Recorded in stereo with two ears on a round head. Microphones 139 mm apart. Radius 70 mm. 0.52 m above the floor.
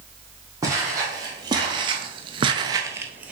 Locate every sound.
0.6 s footsteps: 20° right (ahead or behind), 1.6 m; by 3.3 s 10° right (ahead or behind), 0.8 m